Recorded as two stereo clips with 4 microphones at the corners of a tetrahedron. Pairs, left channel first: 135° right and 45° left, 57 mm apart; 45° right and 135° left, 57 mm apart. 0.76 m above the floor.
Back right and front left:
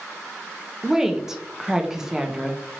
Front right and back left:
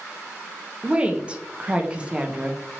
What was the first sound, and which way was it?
A woman speaking, 110° left.